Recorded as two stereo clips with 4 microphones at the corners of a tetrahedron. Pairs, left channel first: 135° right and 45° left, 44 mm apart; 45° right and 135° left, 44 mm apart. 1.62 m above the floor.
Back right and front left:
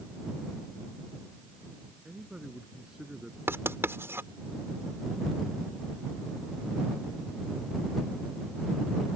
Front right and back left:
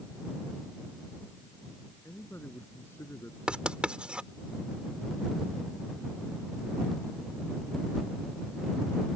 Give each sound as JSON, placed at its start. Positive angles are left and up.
{"t": 2.0, "sound": "a man speaking", "azimuth_deg": -30}
{"t": 3.5, "sound": "writing", "azimuth_deg": 70}